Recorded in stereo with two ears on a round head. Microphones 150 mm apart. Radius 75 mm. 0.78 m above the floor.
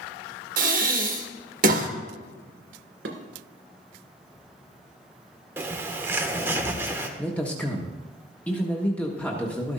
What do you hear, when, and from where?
0.6 s breathing: 55° right (ahead or behind), 1.2 m
3.0 s dishes clattering: 75° right (ahead or behind), 2 m
5.6 s a bird: 15° right (ahead or behind), 1.0 m
7.2 s a man speaking: 10° left (ahead or behind), 1.1 m